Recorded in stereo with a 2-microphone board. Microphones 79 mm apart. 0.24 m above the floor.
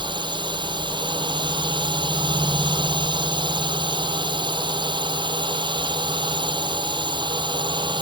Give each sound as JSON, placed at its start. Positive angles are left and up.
{"t": 0.0, "sound": "a drone", "side_deg": -75}